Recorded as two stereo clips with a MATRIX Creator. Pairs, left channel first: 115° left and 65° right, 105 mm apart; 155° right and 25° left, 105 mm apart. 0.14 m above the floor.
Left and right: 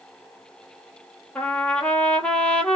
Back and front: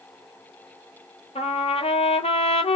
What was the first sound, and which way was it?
A trumpet, 165° right.